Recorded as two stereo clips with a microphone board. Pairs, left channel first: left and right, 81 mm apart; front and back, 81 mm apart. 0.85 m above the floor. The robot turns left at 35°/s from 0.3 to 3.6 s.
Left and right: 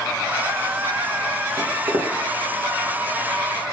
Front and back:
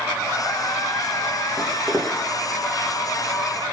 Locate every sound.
1.6 s footsteps: 75° right, 3.5 m; by 2.2 s 95° right, 3.5 m